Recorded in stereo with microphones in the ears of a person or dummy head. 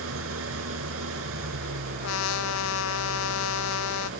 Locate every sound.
0.0 s an engine running: 80° right
2.0 s a trumpet: 80° left